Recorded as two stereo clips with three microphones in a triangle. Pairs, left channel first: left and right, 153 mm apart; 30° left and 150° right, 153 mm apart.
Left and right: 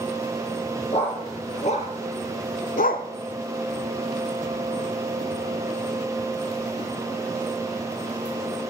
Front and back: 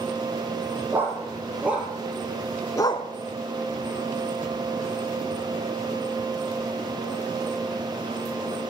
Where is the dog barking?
135° left, 2.5 m; by 3.1 s 70° left, 0.5 m.